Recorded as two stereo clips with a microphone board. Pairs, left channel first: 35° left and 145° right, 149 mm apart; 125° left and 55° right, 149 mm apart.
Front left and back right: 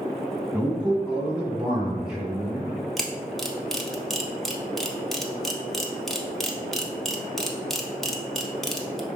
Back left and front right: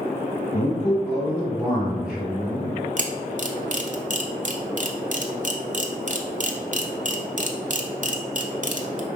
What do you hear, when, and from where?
0.5 s a man speaking: 135° left, 1.8 m; by 2.7 s 65° right, 1.5 m
3.0 s a camera shutter: 55° right, 0.6 m